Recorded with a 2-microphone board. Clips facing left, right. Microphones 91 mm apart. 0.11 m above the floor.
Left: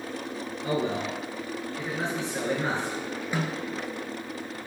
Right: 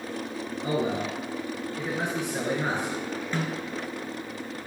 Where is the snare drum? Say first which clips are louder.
Left 1 dB; 10° left (ahead or behind), 1.0 m.